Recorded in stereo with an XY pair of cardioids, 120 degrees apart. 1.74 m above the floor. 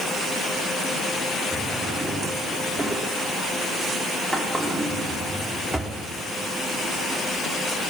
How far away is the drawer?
About 3 m.